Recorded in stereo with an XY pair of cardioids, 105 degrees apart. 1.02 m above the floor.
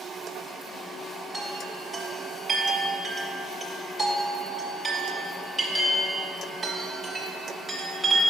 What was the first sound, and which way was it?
A chime, 5° right.